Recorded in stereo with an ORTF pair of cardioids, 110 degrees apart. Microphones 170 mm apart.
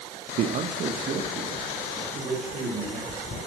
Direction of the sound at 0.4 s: 60° right.